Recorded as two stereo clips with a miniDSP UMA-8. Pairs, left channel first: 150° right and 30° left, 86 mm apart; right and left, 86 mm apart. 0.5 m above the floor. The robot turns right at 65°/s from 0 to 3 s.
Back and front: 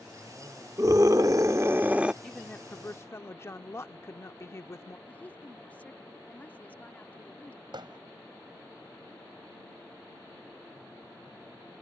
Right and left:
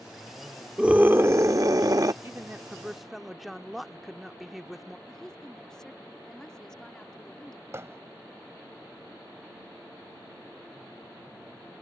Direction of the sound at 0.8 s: 15° left.